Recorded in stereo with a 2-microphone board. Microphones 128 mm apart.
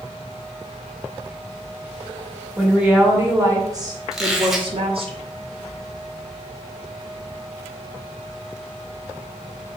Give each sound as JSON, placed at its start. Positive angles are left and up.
{"t": 2.6, "sound": "a woman speaking", "side_deg": -5, "distance_m": 1.2}
{"t": 4.1, "sound": "a squeak", "side_deg": 0, "distance_m": 1.1}